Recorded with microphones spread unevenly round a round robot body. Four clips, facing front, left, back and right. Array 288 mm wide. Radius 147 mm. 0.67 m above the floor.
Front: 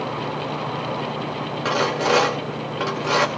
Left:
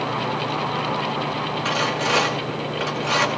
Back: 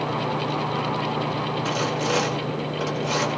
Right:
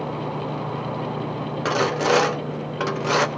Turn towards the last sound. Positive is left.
turn(degrees=-80)